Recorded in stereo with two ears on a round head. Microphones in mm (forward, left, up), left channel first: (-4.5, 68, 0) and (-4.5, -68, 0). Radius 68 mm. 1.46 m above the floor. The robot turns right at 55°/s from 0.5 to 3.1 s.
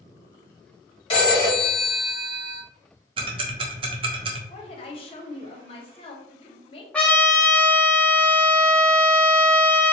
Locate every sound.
1.1 s a phone ringing: 140° left, 1.5 m; by 2.6 s 135° right, 1.5 m
3.2 s ticking: 35° right (ahead or behind), 0.6 m
4.5 s a woman speaking: 40° left (ahead or behind), 0.6 m
6.9 s a trumpet: 10° left (ahead or behind), 0.6 m